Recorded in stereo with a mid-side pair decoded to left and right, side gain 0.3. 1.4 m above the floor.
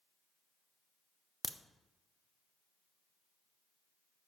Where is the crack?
15° left, 0.6 m.